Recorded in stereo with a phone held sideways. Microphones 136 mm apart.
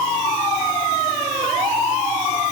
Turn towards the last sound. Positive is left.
No sound to turn to.